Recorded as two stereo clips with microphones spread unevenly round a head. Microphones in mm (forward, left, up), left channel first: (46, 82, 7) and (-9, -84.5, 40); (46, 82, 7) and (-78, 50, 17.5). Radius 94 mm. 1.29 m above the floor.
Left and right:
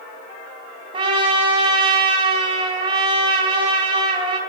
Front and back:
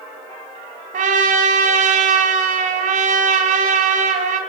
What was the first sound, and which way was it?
A trumpet, 165° right.